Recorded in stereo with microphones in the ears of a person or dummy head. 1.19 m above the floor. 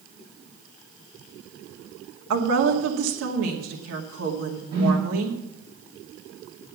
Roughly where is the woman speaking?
Right.